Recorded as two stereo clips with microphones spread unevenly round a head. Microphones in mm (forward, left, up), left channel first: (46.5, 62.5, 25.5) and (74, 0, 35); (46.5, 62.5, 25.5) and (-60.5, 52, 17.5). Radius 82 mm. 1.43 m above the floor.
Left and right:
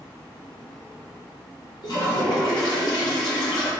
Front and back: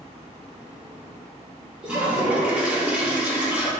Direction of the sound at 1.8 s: 105° left.